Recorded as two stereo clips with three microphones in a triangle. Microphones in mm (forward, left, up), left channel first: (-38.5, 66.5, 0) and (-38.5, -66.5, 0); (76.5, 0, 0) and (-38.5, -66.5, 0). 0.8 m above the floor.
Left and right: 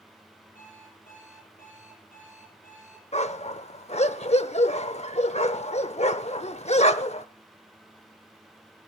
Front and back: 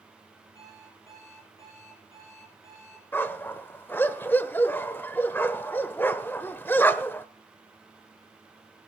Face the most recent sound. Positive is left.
turn(degrees=100)